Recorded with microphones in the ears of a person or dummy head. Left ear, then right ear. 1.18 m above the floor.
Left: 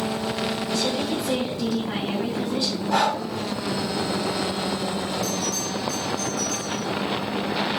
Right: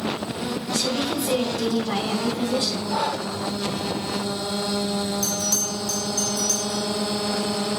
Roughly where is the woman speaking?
Right.